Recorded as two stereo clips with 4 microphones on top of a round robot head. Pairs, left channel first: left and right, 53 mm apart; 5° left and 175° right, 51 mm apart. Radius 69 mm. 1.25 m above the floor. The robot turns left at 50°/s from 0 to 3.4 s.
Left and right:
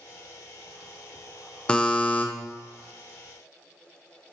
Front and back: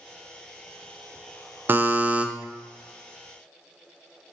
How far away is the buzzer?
About 0.5 m.